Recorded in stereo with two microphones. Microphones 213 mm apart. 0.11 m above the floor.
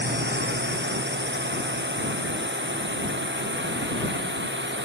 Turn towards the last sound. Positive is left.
turn(degrees=-60)  # may be behind; listen again after turning